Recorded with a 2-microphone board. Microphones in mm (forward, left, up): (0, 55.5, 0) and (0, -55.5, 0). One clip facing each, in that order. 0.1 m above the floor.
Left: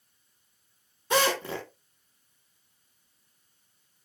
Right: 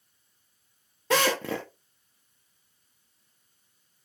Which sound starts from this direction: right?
A drill, at 1.1 s.